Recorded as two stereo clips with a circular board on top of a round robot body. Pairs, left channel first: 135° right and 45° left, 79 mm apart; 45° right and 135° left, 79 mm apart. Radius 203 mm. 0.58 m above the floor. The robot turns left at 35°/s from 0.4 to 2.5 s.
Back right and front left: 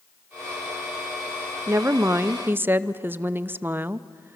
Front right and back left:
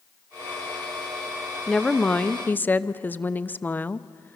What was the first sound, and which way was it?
A woman speaking, 35° left.